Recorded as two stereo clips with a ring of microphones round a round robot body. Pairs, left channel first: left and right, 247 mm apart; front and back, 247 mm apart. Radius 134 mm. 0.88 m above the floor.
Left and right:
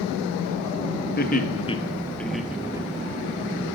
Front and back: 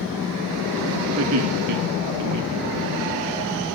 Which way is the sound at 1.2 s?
140° left.